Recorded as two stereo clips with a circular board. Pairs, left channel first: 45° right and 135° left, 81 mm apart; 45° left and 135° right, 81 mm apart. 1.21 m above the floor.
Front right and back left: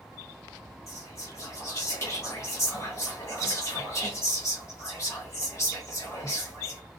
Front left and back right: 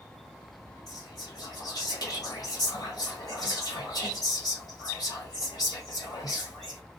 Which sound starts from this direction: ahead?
Whispering, at 0.9 s.